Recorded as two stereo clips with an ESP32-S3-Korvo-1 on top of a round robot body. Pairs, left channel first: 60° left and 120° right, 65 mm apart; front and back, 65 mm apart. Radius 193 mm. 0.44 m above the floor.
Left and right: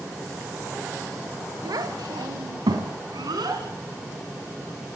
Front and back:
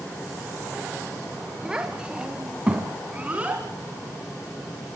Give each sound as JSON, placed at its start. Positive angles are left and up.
{"t": 1.6, "sound": "a child speaking", "azimuth_deg": -100, "distance_m": 2.0}